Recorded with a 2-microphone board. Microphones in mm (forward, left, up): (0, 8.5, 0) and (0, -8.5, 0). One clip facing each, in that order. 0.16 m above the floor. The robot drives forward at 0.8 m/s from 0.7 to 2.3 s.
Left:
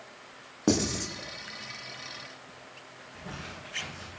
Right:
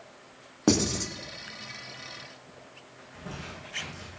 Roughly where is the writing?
Right.